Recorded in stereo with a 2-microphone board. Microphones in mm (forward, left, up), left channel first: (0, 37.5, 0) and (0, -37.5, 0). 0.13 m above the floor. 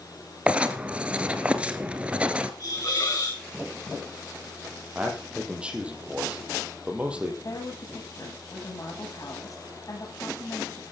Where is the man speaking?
15° right (ahead or behind), 4.5 m.